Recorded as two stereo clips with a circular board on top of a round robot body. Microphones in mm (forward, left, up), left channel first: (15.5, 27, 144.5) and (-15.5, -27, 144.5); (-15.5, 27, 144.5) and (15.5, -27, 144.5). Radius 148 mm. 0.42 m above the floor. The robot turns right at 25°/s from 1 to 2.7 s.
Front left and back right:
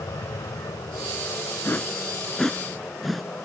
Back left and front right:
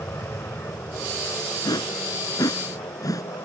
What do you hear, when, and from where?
0.0 s an aircraft: 80° left; by 3.5 s 120° left
1.6 s a whoosh: 120° left; by 3.2 s 150° left